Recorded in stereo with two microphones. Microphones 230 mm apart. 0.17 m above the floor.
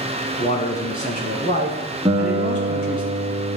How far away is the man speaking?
About 1.4 m.